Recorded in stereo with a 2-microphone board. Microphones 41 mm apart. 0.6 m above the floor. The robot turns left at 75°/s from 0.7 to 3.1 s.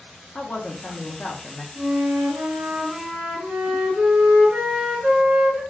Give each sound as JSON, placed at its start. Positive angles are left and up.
{"t": 0.3, "sound": "a woman speaking", "azimuth_deg": 110, "distance_m": 0.7}
{"t": 1.8, "sound": "a flute", "azimuth_deg": -40, "distance_m": 1.9}